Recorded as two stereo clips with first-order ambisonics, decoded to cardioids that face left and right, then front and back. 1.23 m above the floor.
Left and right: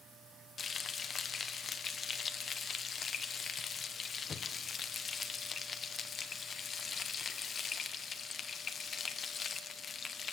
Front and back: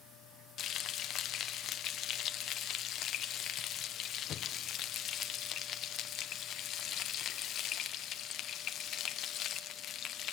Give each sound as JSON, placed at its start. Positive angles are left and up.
{"t": 0.6, "sound": "frying", "azimuth_deg": 35, "distance_m": 0.8}